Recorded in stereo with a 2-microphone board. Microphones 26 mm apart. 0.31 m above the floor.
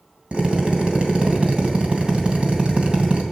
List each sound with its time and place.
0.3 s a drill: 45° right (ahead or behind), 2.5 m